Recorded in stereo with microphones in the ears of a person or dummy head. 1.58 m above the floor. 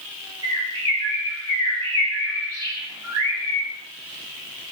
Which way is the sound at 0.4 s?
25° right (ahead or behind).